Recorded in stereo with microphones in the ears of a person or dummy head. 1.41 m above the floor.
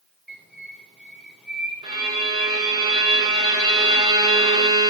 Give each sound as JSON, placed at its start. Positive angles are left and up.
{"t": 0.3, "sound": "a bird", "side_deg": 0, "distance_m": 1.9}
{"t": 1.8, "sound": "a violin", "side_deg": -30, "distance_m": 1.1}